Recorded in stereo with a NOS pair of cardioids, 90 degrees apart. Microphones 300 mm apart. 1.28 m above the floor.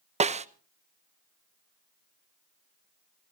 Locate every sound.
0.2 s a snare drum: 25° right, 0.8 m